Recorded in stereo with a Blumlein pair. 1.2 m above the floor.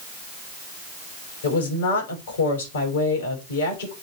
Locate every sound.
1.4 s a woman speaking: 60° left, 5.5 m